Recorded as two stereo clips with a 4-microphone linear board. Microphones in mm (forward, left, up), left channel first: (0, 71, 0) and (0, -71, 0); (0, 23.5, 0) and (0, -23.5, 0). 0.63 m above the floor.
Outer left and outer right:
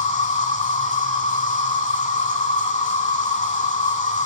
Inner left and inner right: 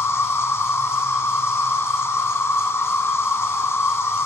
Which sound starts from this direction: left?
An insect, at 0.0 s.